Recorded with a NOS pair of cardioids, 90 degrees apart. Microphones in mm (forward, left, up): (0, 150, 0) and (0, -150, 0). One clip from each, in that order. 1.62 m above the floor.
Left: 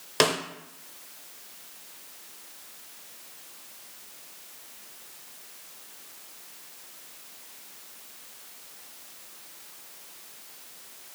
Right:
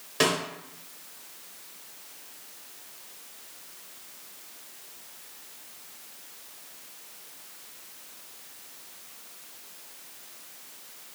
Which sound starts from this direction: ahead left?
A snare drum, at 0.2 s.